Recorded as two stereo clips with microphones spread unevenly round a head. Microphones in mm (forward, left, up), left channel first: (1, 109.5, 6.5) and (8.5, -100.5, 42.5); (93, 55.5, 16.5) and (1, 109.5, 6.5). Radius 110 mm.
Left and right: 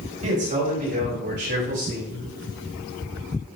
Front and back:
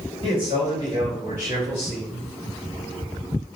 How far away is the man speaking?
About 3 m.